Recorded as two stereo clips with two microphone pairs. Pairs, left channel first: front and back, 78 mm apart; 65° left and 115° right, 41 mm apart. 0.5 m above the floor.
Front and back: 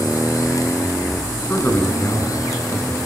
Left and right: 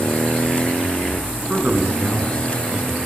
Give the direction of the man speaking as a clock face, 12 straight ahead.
2 o'clock.